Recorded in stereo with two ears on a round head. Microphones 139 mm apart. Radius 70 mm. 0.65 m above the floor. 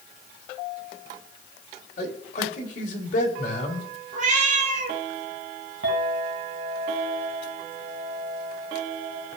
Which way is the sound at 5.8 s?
85° right.